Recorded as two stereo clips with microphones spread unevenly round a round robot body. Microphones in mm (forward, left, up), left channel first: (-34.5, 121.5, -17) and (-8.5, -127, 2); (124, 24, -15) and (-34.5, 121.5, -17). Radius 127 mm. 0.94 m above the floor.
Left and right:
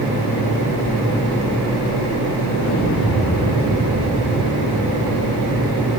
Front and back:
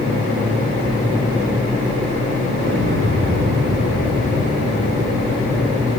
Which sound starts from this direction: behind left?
An explosion, at 2.6 s.